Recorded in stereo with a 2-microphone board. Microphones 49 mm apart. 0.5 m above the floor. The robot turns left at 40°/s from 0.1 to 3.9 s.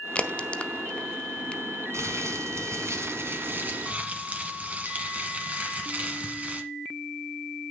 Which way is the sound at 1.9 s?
70° right.